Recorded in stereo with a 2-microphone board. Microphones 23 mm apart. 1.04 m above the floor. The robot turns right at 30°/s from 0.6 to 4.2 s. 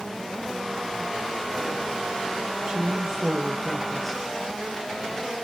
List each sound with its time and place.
2.7 s a woman speaking: 35° right, 1.1 m; by 4.2 s 10° left, 1.1 m